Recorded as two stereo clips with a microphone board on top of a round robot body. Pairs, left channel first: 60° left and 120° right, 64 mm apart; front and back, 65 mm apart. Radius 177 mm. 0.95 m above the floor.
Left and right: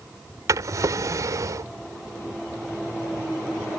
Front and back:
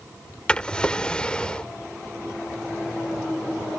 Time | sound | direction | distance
0.5 | a drawer | 75° right | ?